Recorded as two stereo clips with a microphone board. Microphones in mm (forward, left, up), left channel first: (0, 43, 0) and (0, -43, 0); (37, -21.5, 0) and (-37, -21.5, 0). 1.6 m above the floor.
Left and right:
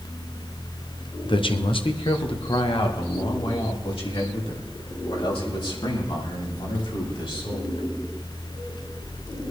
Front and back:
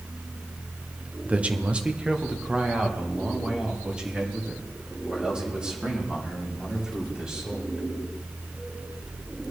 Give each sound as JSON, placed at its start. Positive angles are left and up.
{"t": 1.2, "sound": "a man speaking", "azimuth_deg": 110, "distance_m": 0.9}